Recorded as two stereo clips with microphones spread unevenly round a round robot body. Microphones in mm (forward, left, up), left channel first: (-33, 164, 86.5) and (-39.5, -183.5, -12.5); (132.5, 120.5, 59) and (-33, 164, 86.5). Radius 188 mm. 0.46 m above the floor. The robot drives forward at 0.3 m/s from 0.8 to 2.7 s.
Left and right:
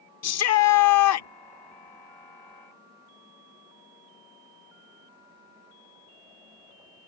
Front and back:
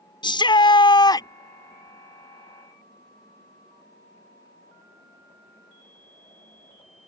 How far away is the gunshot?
I don't hear a gunshot.